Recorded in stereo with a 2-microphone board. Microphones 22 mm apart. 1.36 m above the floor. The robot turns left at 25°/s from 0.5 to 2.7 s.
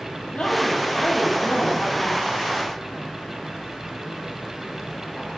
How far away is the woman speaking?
About 0.8 m.